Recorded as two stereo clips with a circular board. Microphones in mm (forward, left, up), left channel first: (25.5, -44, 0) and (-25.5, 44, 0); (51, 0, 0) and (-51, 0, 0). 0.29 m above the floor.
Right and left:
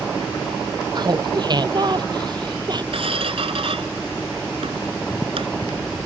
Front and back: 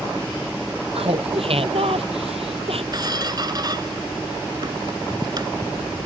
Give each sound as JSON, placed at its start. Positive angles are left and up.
{"t": 0.9, "sound": "laughter", "azimuth_deg": 165}
{"t": 2.9, "sound": "a squeak", "azimuth_deg": 135}